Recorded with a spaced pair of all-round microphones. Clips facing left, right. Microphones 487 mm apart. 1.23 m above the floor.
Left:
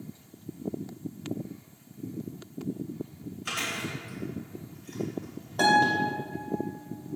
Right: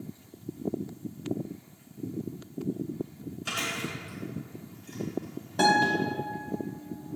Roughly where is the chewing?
Right.